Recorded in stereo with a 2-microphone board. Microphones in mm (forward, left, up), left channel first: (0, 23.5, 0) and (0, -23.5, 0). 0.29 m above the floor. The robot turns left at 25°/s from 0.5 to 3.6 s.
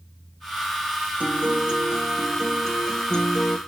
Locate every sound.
1.2 s a guitar: 145° right, 1.5 m; by 3.6 s 155° left, 1.5 m